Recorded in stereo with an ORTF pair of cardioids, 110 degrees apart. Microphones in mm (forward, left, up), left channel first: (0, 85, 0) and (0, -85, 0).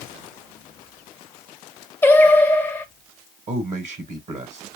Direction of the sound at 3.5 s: 40° right.